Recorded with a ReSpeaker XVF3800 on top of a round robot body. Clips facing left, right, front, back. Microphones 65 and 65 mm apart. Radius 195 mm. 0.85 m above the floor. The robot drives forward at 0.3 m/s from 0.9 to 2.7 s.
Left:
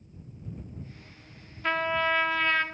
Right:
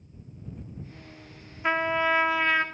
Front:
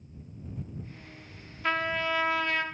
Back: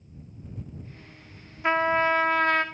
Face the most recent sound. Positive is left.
turn(degrees=-165)